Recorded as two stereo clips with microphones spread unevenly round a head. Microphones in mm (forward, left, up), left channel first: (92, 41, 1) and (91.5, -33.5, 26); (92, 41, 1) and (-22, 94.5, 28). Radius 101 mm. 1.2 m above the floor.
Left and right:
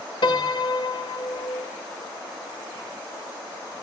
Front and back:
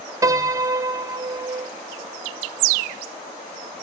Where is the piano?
120° left, 1.0 m.